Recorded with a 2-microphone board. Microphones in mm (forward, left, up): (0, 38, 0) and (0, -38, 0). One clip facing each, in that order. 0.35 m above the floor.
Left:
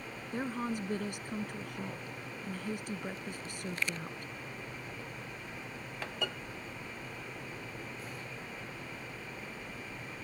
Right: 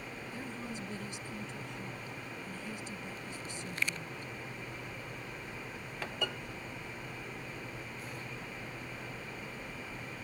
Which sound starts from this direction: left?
A woman speaking, at 0.3 s.